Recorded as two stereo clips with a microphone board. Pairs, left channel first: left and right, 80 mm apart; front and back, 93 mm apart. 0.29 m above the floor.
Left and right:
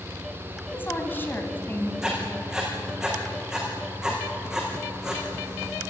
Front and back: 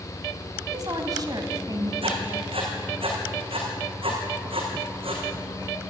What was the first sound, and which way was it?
A woman speaking, 150° left.